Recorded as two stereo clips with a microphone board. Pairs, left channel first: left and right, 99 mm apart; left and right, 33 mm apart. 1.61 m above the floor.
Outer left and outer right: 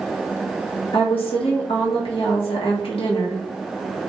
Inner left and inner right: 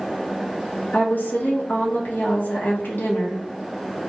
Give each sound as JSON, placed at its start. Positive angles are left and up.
{"t": 0.9, "sound": "a woman speaking", "side_deg": 70, "distance_m": 1.5}